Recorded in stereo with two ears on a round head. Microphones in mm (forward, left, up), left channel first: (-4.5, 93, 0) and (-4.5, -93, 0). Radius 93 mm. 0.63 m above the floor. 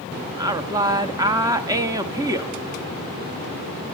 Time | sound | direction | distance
0.4 | a woman speaking | 15° right (ahead or behind) | 0.6 m